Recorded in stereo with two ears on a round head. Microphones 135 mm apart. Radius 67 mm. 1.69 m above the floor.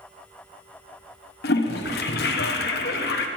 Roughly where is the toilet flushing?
Left.